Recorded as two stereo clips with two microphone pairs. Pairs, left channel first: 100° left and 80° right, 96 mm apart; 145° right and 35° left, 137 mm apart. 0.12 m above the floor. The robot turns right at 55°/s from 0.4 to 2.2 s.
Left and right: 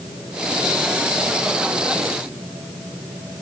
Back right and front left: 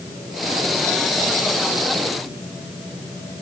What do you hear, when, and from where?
Only background noise.